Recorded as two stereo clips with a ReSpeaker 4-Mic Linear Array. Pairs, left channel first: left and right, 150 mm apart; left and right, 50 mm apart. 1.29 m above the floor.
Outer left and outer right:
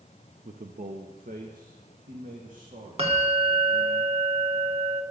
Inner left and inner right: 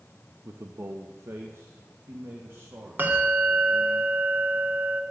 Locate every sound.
0.5 s a man speaking: 65° right (ahead or behind), 1.0 m; by 4.0 s 55° right (ahead or behind), 4 m
3.0 s a bell: 40° right (ahead or behind), 2 m